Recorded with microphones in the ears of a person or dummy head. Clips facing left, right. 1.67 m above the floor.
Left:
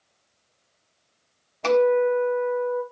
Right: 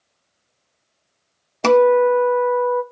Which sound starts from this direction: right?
A guitar, at 1.6 s.